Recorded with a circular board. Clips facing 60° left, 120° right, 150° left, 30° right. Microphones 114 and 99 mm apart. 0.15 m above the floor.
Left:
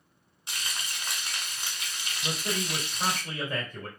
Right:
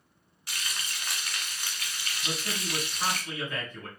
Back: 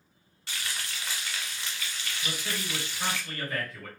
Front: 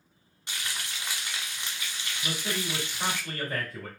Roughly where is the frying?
Ahead.